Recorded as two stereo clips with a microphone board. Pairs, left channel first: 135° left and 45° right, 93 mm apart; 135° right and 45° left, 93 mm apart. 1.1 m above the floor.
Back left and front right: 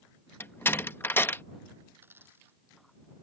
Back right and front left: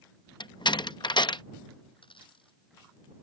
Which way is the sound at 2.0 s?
110° right.